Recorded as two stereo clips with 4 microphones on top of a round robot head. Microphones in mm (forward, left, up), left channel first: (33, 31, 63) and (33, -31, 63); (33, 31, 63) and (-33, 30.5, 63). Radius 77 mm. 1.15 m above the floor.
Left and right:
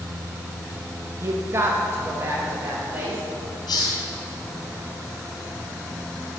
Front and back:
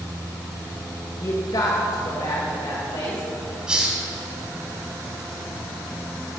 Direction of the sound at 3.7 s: 105° left.